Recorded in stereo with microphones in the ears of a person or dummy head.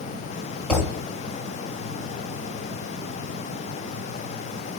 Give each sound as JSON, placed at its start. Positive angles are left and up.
{"t": 0.7, "sound": "a thud", "side_deg": 0, "distance_m": 2.0}